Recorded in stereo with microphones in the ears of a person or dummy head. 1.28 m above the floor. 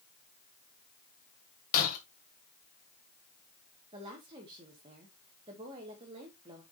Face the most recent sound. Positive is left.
turn(degrees=-25)  # may be behind; listen again after turning